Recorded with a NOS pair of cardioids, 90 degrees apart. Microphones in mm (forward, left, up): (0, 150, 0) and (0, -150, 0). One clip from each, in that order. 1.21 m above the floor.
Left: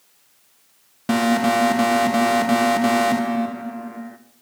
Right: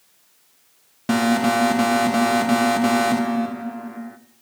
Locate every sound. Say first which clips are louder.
1.1 s an alarm: left 1 dB; straight ahead, 0.9 m